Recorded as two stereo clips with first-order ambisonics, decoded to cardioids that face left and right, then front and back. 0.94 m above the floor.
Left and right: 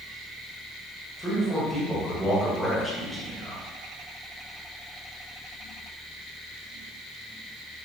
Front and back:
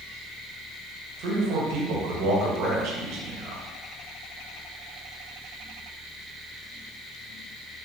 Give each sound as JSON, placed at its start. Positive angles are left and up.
{"t": 1.2, "sound": "a man speaking", "azimuth_deg": 180, "distance_m": 1.1}